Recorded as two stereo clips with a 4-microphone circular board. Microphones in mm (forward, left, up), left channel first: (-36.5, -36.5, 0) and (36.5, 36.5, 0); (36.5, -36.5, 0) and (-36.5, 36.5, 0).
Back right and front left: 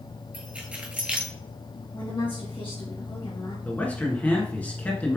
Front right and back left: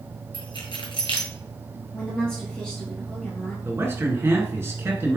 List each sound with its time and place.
0.3 s keys jangling: 30° right, 1.3 m
1.9 s a woman speaking: 125° right, 1.7 m
3.6 s a man speaking: 165° left, 1.4 m